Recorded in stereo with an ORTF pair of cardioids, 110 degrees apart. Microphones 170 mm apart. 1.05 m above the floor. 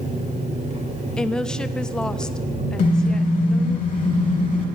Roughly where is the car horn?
Ahead left.